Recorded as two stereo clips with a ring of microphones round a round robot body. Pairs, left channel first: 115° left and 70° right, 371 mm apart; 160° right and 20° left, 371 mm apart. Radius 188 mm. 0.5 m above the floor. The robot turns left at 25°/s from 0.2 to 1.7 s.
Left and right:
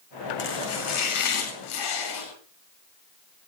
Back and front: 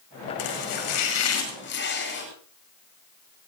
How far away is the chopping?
About 10 m.